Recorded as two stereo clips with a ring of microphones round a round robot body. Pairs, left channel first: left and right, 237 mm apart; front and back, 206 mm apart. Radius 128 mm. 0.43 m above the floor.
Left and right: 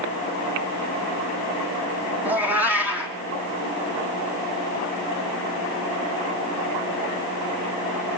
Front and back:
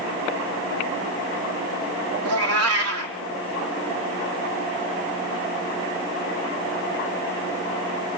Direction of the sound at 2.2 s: 175° right.